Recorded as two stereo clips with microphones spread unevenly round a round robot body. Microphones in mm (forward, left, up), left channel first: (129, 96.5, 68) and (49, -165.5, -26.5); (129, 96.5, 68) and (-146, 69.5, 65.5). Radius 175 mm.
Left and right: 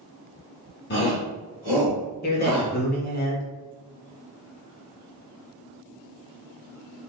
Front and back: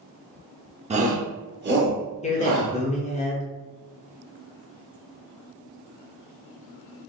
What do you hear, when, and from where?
0.9 s a shout: 130° left, 0.8 m; by 3.2 s 150° left, 1.9 m
2.2 s a man speaking: 15° left, 1.0 m